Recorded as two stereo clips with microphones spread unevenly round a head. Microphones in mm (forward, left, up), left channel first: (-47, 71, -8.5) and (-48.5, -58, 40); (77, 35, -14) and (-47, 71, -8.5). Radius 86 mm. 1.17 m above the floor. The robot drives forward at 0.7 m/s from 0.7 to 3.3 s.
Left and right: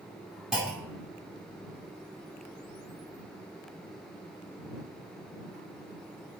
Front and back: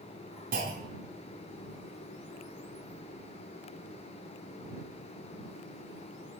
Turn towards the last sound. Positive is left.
turn(degrees=-175)